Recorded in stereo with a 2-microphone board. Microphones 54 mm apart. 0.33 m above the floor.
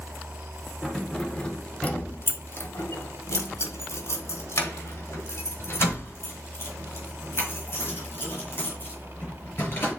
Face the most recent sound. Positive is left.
turn(degrees=40)  # may be behind; listen again after turning